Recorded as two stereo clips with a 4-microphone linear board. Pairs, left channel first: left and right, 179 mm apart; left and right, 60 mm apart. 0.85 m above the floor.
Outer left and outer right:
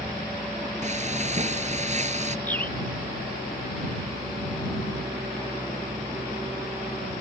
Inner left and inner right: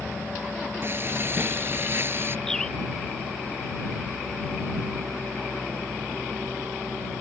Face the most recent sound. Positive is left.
turn(degrees=10)  # may be behind; listen again after turning